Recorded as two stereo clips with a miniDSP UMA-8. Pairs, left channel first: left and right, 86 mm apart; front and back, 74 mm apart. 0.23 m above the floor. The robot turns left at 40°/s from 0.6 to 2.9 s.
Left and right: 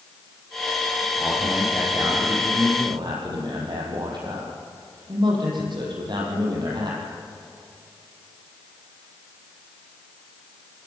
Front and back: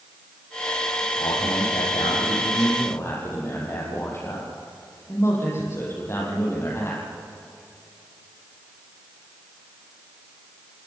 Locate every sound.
1.2 s a man speaking: 10° left, 8 m; by 7.0 s 55° right, 8 m